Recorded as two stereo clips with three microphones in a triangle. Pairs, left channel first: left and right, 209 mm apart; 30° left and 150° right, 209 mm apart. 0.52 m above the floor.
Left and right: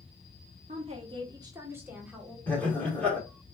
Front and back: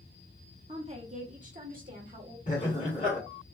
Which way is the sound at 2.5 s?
10° left.